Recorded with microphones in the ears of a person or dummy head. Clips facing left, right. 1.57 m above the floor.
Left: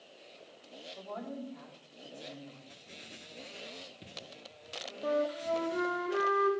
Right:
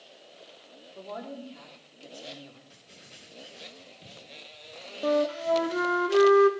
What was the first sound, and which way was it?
A woman speaking, 35° right (ahead or behind).